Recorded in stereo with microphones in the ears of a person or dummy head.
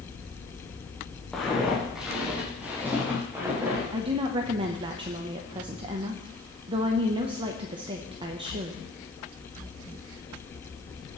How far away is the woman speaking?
About 0.9 m.